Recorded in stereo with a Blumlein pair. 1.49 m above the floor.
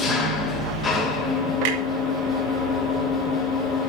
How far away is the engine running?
About 3.5 m.